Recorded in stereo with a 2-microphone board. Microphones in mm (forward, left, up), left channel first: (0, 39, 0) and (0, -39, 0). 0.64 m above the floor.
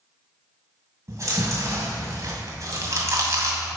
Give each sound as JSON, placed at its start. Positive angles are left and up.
{"t": 1.1, "sound": "chewing", "side_deg": -40, "distance_m": 2.0}